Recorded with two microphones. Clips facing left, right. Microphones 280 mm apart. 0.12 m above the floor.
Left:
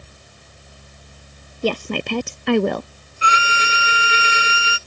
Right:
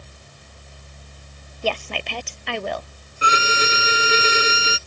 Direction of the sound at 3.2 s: 50° right (ahead or behind).